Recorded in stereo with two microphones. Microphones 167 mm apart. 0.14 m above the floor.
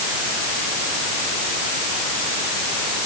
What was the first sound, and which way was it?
Only background noise.